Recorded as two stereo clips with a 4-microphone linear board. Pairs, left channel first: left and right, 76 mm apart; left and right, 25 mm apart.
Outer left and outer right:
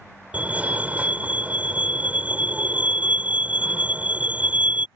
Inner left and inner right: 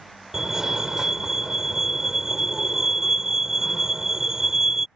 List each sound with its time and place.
0.3 s a fire alarm: 20° right (ahead or behind)